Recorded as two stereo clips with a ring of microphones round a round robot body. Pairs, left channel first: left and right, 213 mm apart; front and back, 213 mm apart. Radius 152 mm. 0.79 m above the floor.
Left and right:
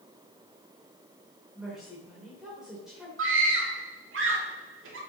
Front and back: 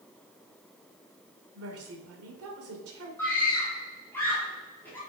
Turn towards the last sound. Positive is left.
turn(degrees=-80)